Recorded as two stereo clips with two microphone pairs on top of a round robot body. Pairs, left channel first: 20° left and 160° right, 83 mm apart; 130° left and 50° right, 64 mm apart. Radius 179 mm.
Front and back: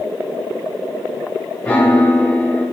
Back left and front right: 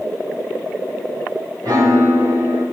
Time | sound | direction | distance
1.6 | a piano | 60° right | 3.5 m